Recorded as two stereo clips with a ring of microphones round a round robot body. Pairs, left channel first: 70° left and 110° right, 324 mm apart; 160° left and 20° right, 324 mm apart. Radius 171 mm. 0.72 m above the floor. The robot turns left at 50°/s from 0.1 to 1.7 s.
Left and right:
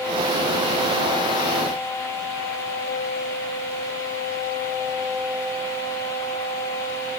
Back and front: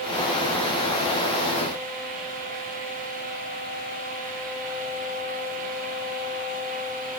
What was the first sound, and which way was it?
Only background noise.